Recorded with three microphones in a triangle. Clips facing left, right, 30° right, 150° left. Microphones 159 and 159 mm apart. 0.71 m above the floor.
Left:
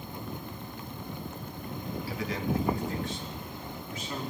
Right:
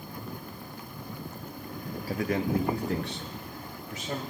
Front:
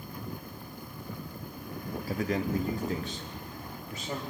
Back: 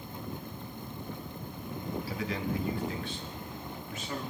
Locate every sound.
2.1 s a man speaking: 55° right, 0.8 m; by 4.2 s 85° right, 2.5 m